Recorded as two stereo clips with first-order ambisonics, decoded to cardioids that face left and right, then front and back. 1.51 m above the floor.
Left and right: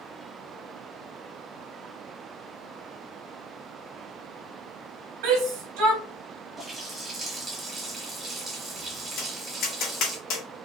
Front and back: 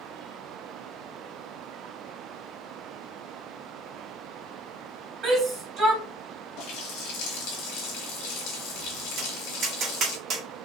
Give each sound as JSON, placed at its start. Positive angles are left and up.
{"t": 5.2, "sound": "a shout", "azimuth_deg": -105, "distance_m": 1.7}
{"t": 6.6, "sound": "a running tap", "azimuth_deg": -15, "distance_m": 1.3}
{"t": 9.2, "sound": "tapping", "azimuth_deg": 130, "distance_m": 1.8}